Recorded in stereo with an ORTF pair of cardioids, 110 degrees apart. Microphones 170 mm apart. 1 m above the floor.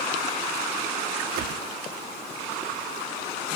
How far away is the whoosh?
About 1.0 m.